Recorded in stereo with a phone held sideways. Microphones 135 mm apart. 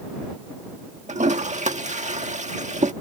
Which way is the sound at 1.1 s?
60° right (ahead or behind).